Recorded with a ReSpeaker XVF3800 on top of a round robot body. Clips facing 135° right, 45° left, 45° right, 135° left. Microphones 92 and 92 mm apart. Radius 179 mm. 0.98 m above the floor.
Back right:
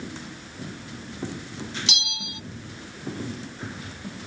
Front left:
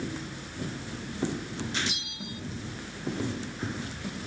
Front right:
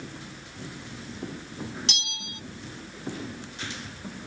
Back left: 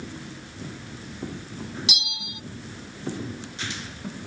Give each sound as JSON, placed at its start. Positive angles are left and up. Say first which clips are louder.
{"t": 1.9, "sound": "a bell", "louder": "back right 3 dB, back left 2 dB", "azimuth_deg": -145}